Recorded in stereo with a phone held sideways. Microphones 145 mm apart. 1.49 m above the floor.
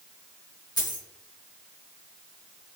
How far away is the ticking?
No ticking in this recording.